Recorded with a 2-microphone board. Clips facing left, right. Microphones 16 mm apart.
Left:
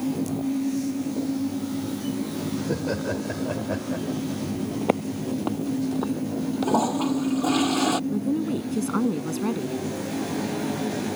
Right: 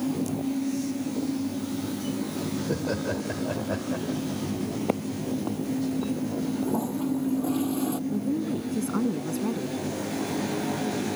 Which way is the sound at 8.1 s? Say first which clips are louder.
Left 2 dB; 25° left (ahead or behind).